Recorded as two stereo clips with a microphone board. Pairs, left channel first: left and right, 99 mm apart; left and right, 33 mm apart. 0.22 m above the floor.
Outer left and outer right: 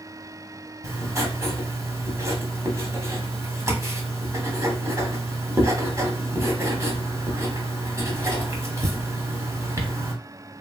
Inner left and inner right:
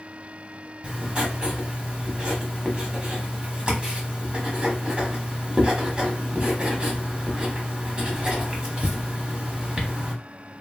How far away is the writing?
About 0.8 m.